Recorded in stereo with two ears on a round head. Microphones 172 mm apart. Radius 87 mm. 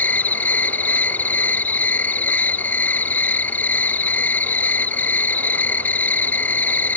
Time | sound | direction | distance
0.0 | an insect | 10° left (ahead or behind) | ?